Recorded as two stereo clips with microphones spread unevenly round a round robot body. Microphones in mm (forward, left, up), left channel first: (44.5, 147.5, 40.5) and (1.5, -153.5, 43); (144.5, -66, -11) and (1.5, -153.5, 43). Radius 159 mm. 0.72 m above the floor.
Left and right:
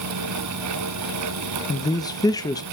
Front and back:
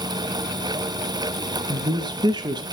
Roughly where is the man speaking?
Behind left.